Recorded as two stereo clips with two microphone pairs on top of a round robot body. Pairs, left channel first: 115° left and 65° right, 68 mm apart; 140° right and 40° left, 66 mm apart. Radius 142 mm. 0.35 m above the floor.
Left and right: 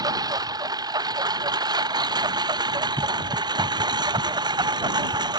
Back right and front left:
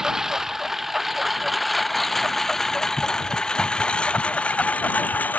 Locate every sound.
0.0 s a lawn mower: 40° right; by 5.4 s 75° right